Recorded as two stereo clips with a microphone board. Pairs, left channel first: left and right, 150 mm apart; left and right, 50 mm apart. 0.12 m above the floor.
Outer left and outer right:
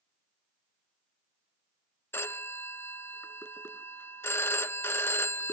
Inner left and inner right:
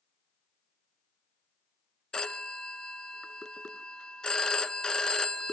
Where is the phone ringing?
15° left (ahead or behind), 0.7 m.